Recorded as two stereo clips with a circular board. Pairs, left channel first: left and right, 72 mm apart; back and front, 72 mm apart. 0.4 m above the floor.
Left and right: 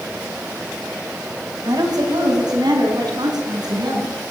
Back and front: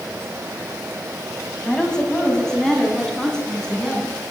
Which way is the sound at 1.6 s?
100° right.